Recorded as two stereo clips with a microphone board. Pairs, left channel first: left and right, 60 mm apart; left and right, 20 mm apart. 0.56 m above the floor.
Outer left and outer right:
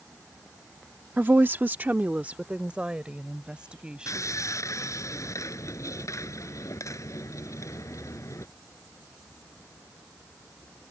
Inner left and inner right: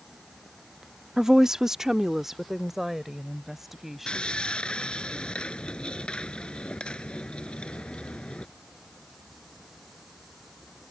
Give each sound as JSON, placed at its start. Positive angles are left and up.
{"t": 1.2, "sound": "a woman speaking", "side_deg": -30}
{"t": 4.1, "sound": "sawing", "side_deg": 60}